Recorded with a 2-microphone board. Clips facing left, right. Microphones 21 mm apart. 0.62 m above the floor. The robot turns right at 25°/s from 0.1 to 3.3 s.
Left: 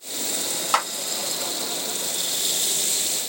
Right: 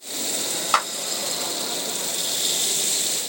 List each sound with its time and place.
0.7 s a clap: 5° right (ahead or behind), 1.7 m